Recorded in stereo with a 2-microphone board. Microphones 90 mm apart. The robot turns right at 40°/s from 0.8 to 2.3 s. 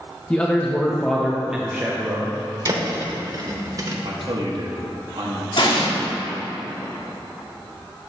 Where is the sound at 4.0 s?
60° right (ahead or behind), 1.1 m.